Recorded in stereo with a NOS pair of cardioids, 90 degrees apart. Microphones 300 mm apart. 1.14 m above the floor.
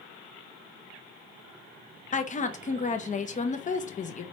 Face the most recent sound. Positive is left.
turn(degrees=25)